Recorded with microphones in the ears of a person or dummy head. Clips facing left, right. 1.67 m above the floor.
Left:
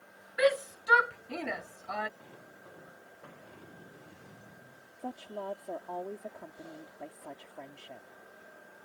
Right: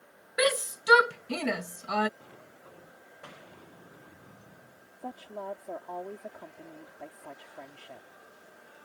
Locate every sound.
0.4 s a shout: 65° right (ahead or behind)
2.2 s a sliding door: 5° left (ahead or behind)
5.0 s a woman speaking: 5° left (ahead or behind)